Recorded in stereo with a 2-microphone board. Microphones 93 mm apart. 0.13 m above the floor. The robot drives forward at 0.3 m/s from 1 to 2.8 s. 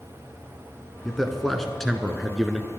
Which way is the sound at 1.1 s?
Centre (ahead or behind).